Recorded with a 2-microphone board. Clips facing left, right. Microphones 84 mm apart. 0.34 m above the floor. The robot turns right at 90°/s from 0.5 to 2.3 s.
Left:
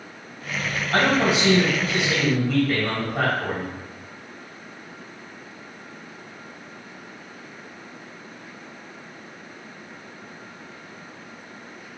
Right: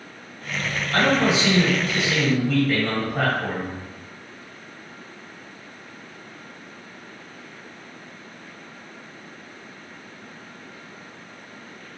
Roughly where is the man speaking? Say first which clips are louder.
Even; ahead left.